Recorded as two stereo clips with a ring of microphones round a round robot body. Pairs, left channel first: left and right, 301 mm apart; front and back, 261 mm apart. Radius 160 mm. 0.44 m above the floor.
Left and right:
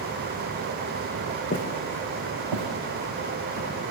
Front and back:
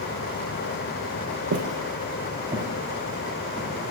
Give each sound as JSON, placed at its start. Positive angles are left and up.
{"t": 1.5, "sound": "footsteps", "azimuth_deg": 150, "distance_m": 1.0}